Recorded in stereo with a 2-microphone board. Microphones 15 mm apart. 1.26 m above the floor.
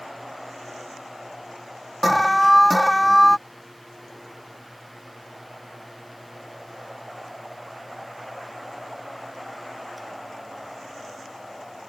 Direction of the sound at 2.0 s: Centre (ahead or behind).